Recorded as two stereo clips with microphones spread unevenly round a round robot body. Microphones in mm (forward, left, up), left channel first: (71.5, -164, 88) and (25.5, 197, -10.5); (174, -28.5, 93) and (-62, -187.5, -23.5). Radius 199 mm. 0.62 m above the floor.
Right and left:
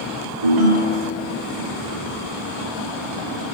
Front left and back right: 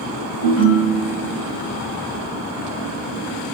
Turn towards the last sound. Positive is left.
turn(degrees=70)